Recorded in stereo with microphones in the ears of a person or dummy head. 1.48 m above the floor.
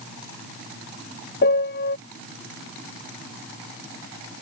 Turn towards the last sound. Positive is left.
turn(degrees=50)  # may be behind; listen again after turning